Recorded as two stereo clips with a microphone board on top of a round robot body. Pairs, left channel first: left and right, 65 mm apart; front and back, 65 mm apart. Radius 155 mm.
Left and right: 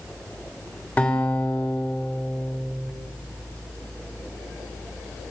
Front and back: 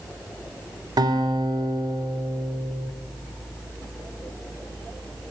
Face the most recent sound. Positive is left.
turn(degrees=165)